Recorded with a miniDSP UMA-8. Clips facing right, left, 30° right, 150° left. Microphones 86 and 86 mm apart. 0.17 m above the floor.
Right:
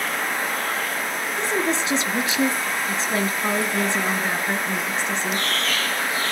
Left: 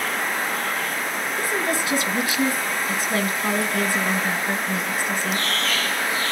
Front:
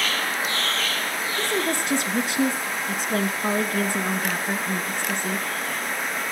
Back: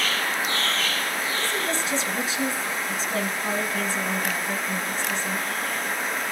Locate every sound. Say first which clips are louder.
1.4 s a woman speaking: right 2 dB, front 2 dB; 30° right, 1.8 m